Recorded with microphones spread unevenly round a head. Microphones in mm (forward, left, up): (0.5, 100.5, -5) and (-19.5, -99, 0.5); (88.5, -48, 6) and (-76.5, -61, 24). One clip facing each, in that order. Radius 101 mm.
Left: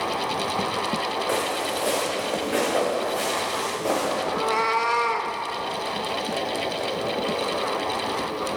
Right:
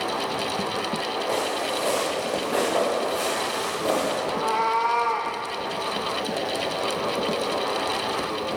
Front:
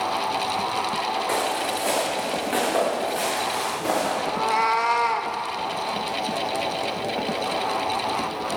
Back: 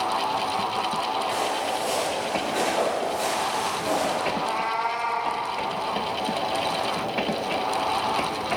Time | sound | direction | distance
1.3 | footsteps | 10° left | 4 m
4.3 | a cat meowing | 25° left | 0.9 m